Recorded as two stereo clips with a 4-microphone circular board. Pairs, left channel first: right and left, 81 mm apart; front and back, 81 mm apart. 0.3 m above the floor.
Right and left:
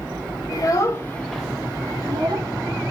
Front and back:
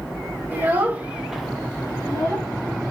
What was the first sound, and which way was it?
A child speaking, 120° right.